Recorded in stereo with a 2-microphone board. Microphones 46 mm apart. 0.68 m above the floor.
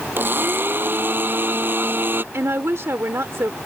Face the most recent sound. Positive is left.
turn(degrees=-70)  # may be behind; listen again after turning